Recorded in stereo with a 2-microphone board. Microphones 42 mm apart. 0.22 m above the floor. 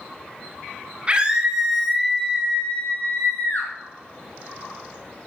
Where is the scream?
25° right (ahead or behind), 2.5 m; by 3.7 s 50° left (ahead or behind), 3 m.